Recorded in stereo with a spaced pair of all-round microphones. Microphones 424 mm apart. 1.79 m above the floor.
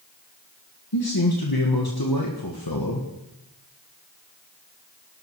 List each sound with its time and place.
0.9 s a man speaking: 55° left (ahead or behind), 1.7 m